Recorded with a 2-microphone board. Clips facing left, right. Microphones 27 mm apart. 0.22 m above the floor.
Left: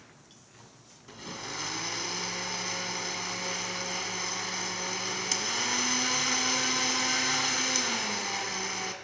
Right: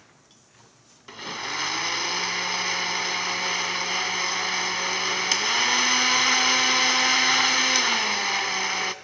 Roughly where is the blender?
Right.